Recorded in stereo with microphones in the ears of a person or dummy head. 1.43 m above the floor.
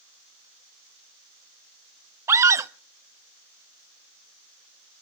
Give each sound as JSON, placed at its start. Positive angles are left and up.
{"t": 2.3, "sound": "a scream", "side_deg": -20, "distance_m": 0.6}